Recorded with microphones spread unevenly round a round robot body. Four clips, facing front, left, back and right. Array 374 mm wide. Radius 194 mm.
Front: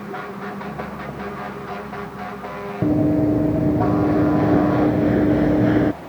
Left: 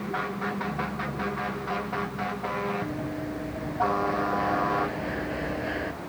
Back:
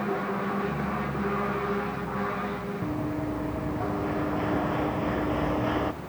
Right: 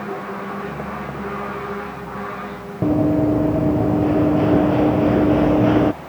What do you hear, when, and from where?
2.8 s running footsteps: 40° right; by 5.9 s 50° right